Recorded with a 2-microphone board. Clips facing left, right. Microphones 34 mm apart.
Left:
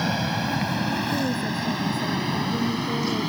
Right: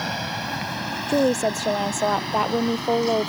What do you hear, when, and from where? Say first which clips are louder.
0.0 s an aircraft: left 2 dB; centre (ahead or behind); by 3.3 s 5° left (ahead or behind)
1.1 s a woman speaking: right 5 dB; 70° right (ahead or behind)